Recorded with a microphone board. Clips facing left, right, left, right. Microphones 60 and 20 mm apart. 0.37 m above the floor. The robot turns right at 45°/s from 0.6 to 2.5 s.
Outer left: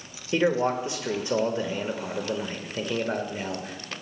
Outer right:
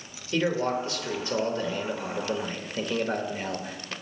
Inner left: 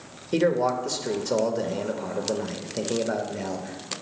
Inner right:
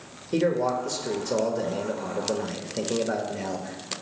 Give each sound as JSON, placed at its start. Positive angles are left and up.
{"t": 0.3, "sound": "a man speaking", "side_deg": 20, "distance_m": 0.9}